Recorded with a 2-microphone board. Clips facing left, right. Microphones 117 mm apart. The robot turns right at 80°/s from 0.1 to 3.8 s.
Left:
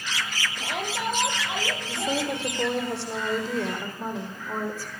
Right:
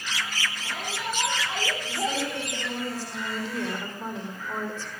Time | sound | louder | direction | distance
0.6 | a shout | left 4 dB | 90° left | 8.5 m
1.9 | a woman speaking | left 3 dB | 15° left | 8 m